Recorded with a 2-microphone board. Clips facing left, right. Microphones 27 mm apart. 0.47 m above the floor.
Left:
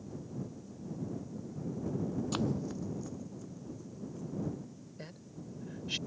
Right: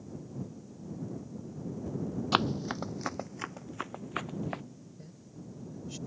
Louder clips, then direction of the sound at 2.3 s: Right 10 dB; 40° right (ahead or behind).